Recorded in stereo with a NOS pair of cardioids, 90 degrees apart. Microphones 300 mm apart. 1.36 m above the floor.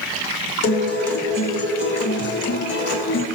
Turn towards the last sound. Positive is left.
turn(degrees=55)